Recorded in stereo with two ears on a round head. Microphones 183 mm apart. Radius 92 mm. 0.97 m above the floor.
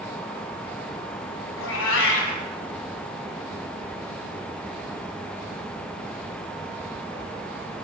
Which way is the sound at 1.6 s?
70° left (ahead or behind).